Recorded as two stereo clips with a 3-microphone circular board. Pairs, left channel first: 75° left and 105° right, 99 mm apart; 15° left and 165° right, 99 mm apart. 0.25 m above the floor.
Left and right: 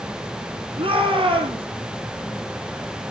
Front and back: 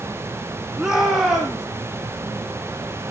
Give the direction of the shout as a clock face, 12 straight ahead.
3 o'clock.